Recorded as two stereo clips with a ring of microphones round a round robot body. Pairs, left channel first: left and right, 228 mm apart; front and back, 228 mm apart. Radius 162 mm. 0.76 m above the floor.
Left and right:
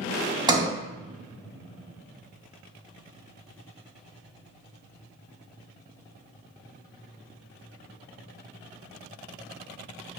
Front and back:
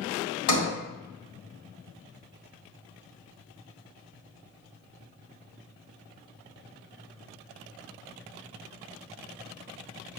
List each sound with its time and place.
0.5 s a sliding door: 20° right, 1.8 m